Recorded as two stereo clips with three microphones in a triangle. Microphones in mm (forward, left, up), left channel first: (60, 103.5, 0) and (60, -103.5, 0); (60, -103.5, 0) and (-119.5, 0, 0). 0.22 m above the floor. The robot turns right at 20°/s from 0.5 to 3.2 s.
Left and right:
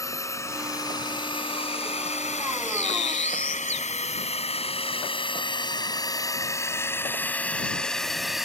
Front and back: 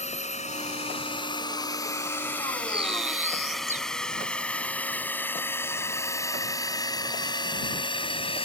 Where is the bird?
85° left; by 3.9 s 100° left.